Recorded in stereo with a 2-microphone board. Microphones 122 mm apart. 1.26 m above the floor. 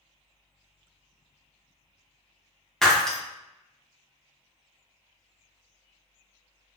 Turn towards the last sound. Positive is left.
turn(degrees=5)  # may be behind; listen again after turning